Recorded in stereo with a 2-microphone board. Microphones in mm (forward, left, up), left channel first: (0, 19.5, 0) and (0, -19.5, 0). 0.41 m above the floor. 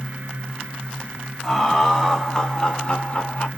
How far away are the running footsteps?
No running footsteps in this recording.